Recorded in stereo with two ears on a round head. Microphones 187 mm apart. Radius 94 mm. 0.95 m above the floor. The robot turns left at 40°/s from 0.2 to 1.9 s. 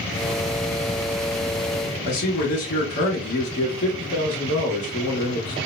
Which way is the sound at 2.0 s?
50° left (ahead or behind).